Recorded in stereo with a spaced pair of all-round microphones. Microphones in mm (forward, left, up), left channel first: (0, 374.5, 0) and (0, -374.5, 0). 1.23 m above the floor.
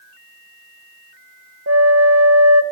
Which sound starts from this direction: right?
A flute, at 1.7 s.